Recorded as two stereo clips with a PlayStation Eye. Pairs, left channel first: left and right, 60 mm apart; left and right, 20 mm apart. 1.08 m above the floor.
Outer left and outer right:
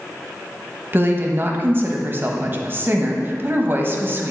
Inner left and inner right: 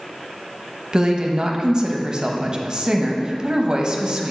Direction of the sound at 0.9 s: 35° right (ahead or behind).